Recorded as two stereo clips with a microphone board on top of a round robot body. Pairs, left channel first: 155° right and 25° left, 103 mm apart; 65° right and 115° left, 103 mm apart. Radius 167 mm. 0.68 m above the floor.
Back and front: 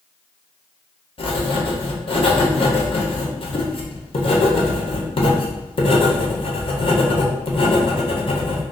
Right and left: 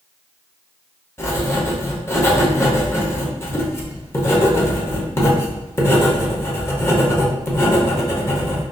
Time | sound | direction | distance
1.2 | writing | 130° right | 1.0 m